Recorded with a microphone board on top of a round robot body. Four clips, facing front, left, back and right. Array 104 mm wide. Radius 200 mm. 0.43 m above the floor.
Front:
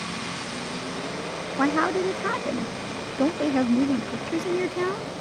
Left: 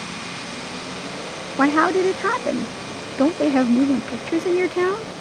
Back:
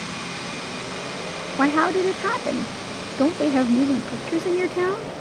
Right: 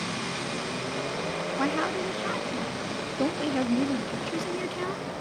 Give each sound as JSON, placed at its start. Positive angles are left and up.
{"t": 1.6, "sound": "a woman speaking", "azimuth_deg": 110}